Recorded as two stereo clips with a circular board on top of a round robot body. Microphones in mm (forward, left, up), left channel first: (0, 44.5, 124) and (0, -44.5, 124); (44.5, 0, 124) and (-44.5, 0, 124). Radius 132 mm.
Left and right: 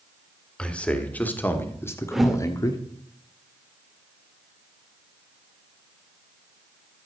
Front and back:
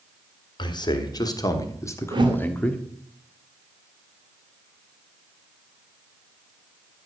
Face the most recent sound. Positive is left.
turn(degrees=-175)